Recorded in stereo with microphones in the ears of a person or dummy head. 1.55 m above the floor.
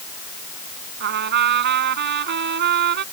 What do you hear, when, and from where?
1.0 s a trumpet: 60° right (ahead or behind)